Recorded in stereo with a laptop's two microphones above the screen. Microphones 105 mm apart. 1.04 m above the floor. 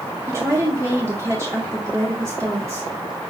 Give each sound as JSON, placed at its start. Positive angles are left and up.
{"t": 0.3, "sound": "a woman speaking", "side_deg": -25, "distance_m": 1.1}